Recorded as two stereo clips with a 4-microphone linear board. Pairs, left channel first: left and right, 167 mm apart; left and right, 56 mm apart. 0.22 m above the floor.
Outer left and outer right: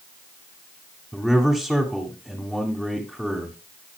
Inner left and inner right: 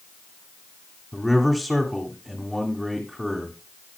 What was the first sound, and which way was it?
A man speaking, 5° left (ahead or behind).